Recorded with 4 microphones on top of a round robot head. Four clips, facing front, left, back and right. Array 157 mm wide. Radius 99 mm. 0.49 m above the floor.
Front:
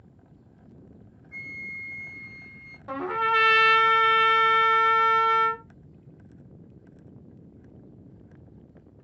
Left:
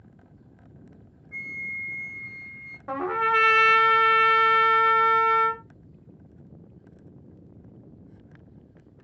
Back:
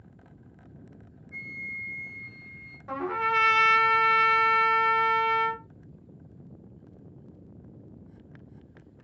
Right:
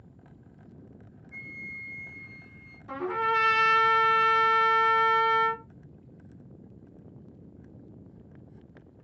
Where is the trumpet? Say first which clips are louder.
Left 3 dB, front 2 dB; 70° left, 0.8 m.